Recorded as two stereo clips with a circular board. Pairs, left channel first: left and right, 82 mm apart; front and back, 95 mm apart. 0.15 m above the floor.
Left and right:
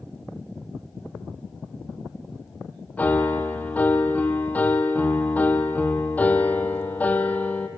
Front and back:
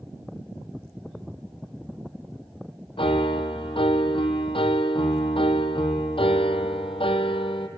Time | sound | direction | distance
3.0 | a piano | 20° left | 1.0 m